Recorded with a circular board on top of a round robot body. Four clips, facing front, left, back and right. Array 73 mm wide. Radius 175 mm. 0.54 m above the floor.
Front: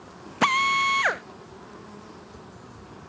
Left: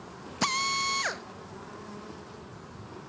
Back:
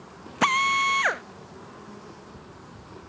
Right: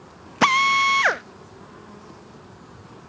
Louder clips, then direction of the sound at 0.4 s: Right 12 dB, even; 90° right.